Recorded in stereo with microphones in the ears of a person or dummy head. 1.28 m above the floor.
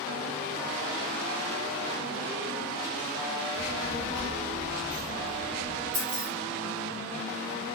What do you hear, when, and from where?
3.5 s a child speaking: 35° left (ahead or behind), 0.6 m; by 5.8 s 35° right (ahead or behind), 1.2 m
5.9 s keys jangling: 45° right (ahead or behind), 0.8 m